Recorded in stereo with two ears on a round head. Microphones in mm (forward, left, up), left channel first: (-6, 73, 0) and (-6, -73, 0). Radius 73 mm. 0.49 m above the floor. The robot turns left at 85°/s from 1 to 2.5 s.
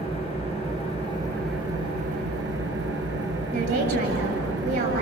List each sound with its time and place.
0.0 s an engine running: 40° left, 6.5 m; by 5.0 s 85° right, 6.5 m
3.5 s a woman speaking: 60° right (ahead or behind), 7.5 m